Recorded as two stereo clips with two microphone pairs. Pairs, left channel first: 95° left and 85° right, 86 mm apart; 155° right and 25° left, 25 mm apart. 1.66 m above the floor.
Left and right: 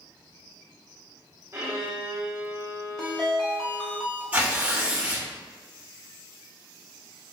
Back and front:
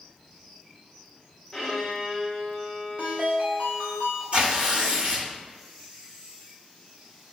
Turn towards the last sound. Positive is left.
turn(degrees=-15)